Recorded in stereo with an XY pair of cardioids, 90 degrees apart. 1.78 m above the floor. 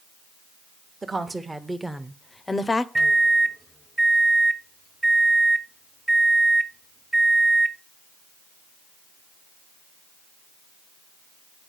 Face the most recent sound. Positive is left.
turn(degrees=-20)